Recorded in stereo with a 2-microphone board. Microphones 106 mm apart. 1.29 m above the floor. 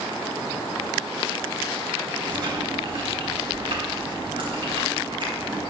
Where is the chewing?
55° right (ahead or behind), 4 m.